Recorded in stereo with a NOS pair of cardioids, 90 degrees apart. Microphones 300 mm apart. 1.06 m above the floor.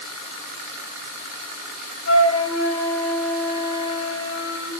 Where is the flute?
50° left, 4.5 m.